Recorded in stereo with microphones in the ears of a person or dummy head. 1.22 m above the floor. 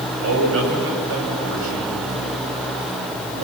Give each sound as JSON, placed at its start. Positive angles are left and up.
{"t": 0.2, "sound": "a man speaking", "side_deg": -80, "distance_m": 7.0}